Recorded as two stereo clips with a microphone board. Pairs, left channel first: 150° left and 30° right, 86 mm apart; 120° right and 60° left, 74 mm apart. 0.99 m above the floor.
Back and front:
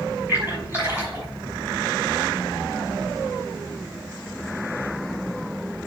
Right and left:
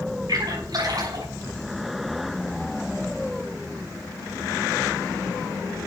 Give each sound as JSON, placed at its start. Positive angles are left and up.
{"t": 0.3, "sound": "a splash", "azimuth_deg": 40, "distance_m": 6.0}